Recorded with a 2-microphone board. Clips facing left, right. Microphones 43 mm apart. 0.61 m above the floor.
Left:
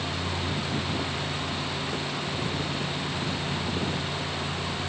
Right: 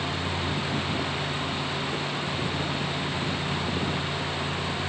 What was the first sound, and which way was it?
Only background noise.